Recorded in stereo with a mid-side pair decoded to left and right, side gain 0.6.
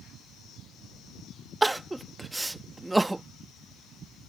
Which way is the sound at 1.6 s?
5° right.